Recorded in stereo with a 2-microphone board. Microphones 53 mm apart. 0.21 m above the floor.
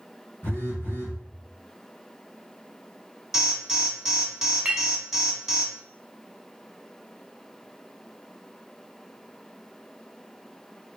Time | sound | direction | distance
0.4 | a phone buzzing | 55° left (ahead or behind) | 2.5 m
3.3 | an alarm | 5° right (ahead or behind) | 1.2 m
4.7 | a clink | 25° right (ahead or behind) | 0.8 m